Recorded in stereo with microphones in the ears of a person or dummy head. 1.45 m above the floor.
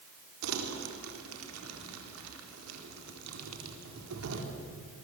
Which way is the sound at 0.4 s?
85° right.